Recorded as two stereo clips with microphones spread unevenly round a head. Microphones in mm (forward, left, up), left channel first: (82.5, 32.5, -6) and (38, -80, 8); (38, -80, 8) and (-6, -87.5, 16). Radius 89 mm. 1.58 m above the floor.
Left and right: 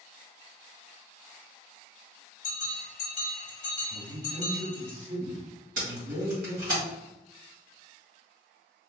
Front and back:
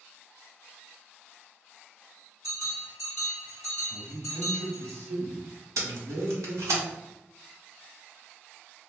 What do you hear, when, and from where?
2.4 s a bell: 105° left, 1.4 m
3.9 s a man speaking: 160° right, 1.5 m
5.8 s tape being pulled: 165° right, 1.5 m